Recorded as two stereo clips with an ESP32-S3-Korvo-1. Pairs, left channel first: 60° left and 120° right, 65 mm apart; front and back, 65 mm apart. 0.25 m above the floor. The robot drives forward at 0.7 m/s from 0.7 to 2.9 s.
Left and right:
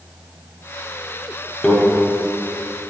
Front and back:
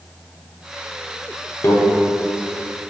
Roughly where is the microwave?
Ahead.